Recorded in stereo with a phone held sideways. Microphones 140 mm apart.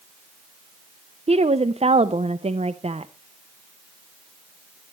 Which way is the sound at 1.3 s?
45° right (ahead or behind).